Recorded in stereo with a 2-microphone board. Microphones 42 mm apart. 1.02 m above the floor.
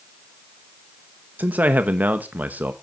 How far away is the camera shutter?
I don't hear a camera shutter.